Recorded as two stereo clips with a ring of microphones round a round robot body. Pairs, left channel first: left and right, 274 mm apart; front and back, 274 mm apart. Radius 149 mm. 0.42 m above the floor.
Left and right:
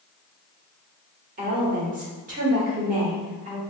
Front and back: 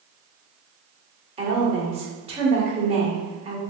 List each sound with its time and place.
1.4 s a woman speaking: 125° right, 1.4 m